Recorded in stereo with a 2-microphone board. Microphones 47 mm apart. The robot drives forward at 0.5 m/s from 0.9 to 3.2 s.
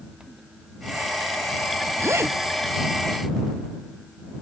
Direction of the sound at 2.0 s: 70° right (ahead or behind).